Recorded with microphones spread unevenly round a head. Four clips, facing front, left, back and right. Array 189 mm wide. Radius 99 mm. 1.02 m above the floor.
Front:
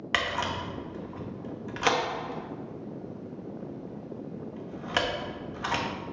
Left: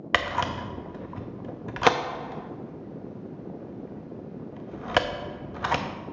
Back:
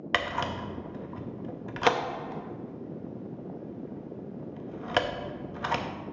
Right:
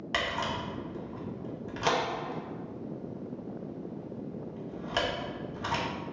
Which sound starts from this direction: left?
A camera shutter, at 0.1 s.